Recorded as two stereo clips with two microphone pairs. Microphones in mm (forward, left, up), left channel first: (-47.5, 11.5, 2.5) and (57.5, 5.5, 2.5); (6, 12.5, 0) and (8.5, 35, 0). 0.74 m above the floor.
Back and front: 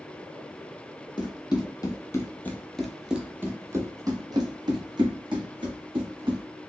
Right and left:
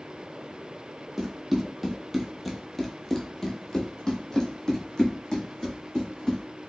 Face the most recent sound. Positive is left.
turn(degrees=-35)